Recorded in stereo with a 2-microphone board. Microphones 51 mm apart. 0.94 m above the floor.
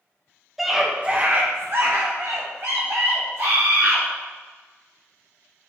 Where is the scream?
Centre (ahead or behind), 1.0 m; by 4.0 s 75° right (ahead or behind), 3 m.